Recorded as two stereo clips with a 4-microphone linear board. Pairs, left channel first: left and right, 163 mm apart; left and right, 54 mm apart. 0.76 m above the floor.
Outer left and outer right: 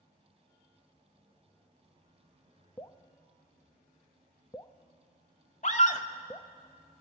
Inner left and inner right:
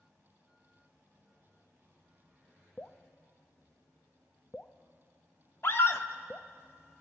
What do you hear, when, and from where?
2.8 s dripping: 25° left (ahead or behind), 0.7 m
5.6 s a scream: 45° left (ahead or behind), 1.9 m